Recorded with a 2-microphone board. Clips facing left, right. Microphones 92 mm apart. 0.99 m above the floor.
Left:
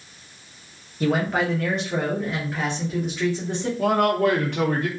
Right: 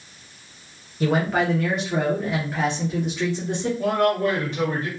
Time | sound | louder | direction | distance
1.0 | a man speaking | right 1 dB | centre (ahead or behind) | 0.7 m
3.8 | a man speaking | left 2 dB | 60° left (ahead or behind) | 0.8 m